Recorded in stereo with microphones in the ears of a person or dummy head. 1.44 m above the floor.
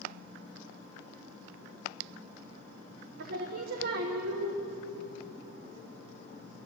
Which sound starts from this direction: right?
Singing, at 3.2 s.